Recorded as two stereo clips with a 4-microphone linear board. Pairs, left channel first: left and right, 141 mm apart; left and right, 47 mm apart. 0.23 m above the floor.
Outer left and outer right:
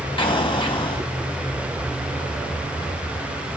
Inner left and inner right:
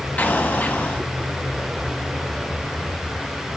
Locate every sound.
0.2 s an explosion: 35° left (ahead or behind), 0.9 m